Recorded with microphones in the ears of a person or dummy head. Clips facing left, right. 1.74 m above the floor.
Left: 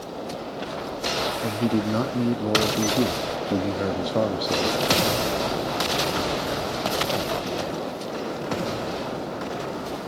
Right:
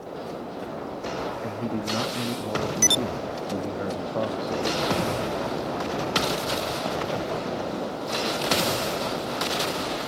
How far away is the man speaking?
About 0.6 m.